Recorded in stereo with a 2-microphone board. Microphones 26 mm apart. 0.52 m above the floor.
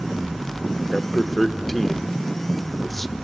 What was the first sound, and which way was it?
A man speaking, 5° left (ahead or behind).